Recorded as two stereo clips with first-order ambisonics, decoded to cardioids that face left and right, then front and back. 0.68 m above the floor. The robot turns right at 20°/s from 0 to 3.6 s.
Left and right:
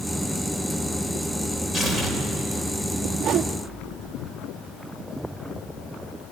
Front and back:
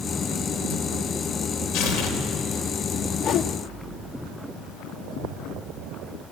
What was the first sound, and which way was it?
Tearing paper, 10° right.